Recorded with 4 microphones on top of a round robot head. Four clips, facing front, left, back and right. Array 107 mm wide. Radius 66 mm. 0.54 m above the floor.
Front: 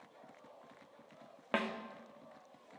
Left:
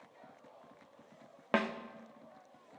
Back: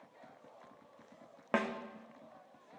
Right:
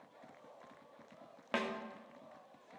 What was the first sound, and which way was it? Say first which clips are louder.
A snare drum: left 5 dB, back 2 dB; 110° left.